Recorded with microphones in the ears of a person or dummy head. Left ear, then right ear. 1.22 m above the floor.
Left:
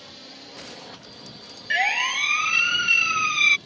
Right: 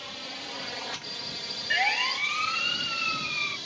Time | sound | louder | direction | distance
0.0 | a drone | right 5 dB | 30° right (ahead or behind) | ?
1.7 | a siren | left 4 dB | 10° left (ahead or behind) | ?